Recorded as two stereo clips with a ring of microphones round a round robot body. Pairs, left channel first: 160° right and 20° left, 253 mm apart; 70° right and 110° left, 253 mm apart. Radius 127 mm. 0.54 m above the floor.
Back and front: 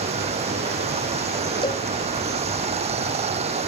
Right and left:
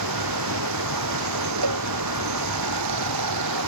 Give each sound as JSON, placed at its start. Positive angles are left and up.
{"t": 0.0, "sound": "running water", "azimuth_deg": 90}
{"t": 1.6, "sound": "a cowbell", "azimuth_deg": 130}